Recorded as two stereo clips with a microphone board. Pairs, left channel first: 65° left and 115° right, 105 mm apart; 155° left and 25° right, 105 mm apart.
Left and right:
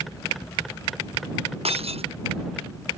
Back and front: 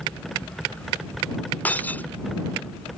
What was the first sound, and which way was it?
Breaking glass, 130° right.